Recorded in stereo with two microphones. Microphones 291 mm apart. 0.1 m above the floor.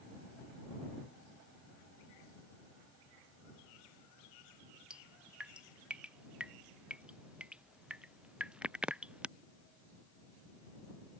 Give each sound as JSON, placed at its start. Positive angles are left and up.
{"t": 4.9, "sound": "dripping", "side_deg": -5}